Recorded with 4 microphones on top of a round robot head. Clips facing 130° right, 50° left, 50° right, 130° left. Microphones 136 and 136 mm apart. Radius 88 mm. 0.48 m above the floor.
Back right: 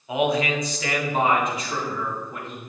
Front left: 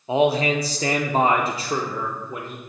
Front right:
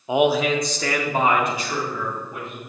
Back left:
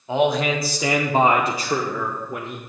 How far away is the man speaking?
About 0.9 m.